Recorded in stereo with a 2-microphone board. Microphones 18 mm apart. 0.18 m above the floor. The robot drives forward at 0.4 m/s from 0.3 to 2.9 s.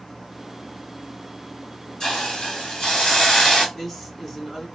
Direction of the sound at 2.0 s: 55° left (ahead or behind).